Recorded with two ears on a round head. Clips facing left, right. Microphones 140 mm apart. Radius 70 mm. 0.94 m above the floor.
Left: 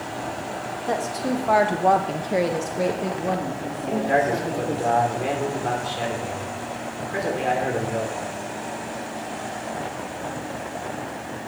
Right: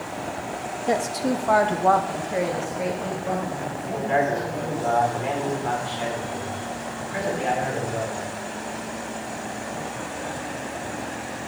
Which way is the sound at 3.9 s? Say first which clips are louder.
Left 2 dB; 55° left (ahead or behind).